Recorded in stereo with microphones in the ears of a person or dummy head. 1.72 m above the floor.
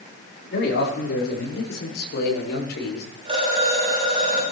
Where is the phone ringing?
30° right (ahead or behind), 7 m.